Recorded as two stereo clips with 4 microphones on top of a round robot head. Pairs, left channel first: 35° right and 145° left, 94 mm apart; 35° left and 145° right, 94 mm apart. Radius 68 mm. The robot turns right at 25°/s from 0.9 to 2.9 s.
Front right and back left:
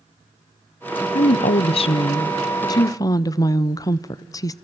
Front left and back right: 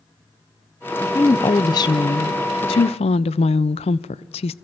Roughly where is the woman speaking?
Ahead right.